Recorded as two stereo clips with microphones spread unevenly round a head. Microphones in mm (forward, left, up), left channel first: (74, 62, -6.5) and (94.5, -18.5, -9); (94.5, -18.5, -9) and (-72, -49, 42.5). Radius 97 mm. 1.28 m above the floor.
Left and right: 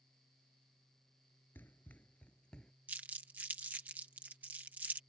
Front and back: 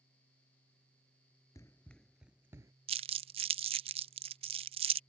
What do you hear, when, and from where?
1.6 s running footsteps: 105° left; by 2.7 s straight behind
2.9 s crumpling: 150° right